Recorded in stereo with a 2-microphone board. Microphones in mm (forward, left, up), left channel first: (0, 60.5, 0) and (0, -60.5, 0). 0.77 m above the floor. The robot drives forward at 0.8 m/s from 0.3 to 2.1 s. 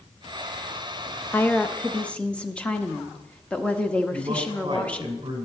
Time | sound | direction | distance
1.3 | a woman speaking | 15° left (ahead or behind) | 0.5 m
4.1 | a man speaking | 40° right (ahead or behind) | 3 m